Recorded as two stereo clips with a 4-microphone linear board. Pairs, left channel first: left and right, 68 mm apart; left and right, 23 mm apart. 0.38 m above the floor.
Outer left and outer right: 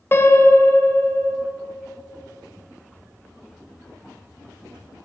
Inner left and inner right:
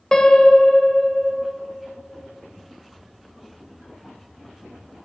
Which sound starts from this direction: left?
A piano, at 0.1 s.